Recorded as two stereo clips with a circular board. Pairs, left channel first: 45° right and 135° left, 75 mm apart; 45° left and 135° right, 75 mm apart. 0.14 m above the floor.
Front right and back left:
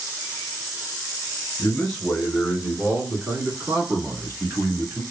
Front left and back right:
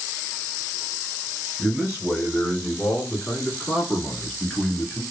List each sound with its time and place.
1.6 s a man speaking: 40° right, 1.1 m; by 5.0 s 125° left, 1.8 m